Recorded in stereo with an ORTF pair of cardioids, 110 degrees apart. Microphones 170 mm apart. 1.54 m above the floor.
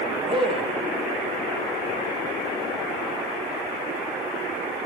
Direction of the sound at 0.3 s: 30° right.